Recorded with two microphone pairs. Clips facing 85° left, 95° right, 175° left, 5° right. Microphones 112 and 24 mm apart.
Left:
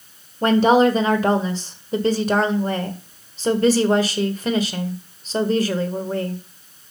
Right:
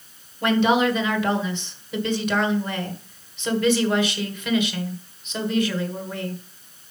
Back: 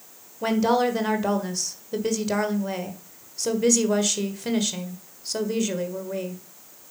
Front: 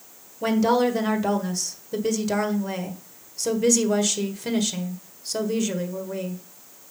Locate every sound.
0.4 s a woman speaking: 95° left, 1.5 m